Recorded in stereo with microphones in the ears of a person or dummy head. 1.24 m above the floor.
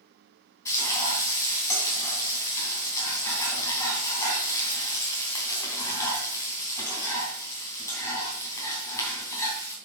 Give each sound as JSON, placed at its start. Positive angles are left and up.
{"t": 0.7, "sound": "frying", "side_deg": 25, "distance_m": 3.0}